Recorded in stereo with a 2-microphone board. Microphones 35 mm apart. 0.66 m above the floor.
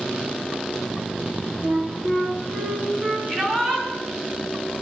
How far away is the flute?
About 3.5 m.